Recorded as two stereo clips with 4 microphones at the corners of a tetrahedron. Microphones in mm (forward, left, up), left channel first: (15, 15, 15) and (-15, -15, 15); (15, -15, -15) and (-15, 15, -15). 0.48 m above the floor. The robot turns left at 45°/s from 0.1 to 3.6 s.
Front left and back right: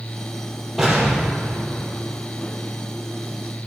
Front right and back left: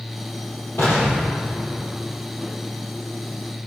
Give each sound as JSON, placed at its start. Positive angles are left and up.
{"t": 0.8, "sound": "an explosion", "azimuth_deg": -50, "distance_m": 4.0}